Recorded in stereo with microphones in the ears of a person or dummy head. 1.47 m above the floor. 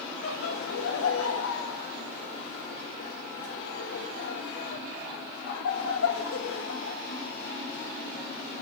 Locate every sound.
0.2 s laughter: 85° left, 1.3 m